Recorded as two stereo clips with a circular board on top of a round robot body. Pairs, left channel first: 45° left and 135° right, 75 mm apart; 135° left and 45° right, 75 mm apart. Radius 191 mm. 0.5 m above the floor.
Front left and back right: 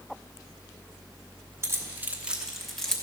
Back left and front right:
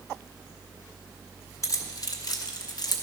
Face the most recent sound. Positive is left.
turn(degrees=125)